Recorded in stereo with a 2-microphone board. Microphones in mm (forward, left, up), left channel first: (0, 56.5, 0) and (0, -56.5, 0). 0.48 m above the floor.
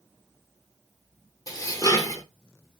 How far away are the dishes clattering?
About 0.6 m.